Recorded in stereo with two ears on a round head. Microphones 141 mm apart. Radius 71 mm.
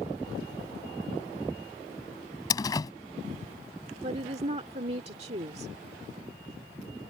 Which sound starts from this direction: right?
A woman speaking, at 4.0 s.